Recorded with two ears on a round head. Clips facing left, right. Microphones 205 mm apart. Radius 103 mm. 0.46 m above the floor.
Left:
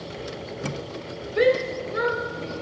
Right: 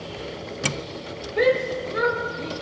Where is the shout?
15° left (ahead or behind), 0.9 m; by 2.5 s 5° right (ahead or behind), 2.5 m.